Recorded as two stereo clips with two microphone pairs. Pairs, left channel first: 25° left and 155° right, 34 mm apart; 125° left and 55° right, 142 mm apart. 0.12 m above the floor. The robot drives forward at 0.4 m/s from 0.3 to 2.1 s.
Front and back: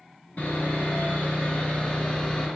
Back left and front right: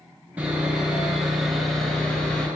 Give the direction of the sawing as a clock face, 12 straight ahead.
11 o'clock.